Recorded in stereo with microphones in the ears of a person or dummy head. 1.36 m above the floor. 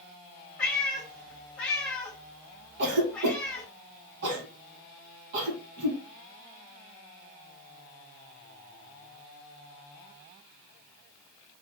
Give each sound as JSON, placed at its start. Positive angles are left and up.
{"t": 0.6, "sound": "a cat meowing", "side_deg": 10, "distance_m": 1.1}
{"t": 2.8, "sound": "a cough", "side_deg": -65, "distance_m": 1.4}